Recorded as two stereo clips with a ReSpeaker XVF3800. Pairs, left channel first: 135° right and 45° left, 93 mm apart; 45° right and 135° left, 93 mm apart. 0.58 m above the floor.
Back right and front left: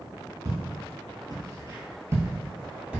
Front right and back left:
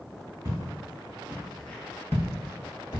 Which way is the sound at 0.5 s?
80° left.